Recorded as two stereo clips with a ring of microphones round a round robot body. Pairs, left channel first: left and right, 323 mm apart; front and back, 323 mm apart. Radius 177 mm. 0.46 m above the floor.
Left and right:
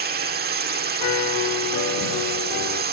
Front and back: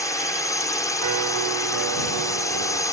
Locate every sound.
0.0 s a drone: 70° right
1.0 s a piano: 140° left